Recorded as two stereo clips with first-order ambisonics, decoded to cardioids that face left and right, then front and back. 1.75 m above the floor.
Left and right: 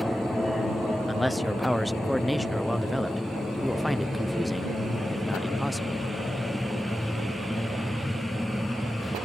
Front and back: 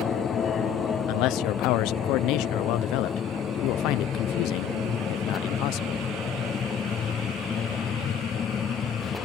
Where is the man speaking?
5° left.